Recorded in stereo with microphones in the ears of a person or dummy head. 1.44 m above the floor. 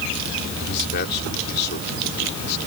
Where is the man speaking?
60° left (ahead or behind).